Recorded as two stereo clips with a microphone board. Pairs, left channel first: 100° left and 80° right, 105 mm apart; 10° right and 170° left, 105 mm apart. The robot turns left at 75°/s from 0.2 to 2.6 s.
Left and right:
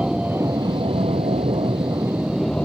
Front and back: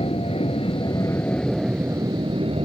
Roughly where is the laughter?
I don't hear laughter.